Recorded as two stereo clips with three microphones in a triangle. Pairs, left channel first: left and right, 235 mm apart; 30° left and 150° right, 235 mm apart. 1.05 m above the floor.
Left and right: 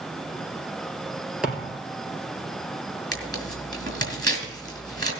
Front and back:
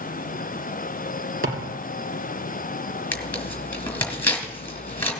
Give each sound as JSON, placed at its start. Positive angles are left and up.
{"t": 1.4, "sound": "a thud", "azimuth_deg": -175, "distance_m": 3.0}
{"t": 3.1, "sound": "tearing paper", "azimuth_deg": -50, "distance_m": 3.5}